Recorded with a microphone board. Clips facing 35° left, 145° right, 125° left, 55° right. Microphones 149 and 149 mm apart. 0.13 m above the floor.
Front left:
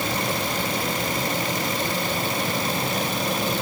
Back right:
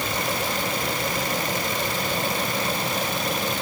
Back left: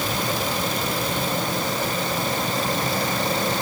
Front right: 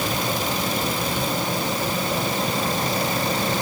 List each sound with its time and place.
Only background noise.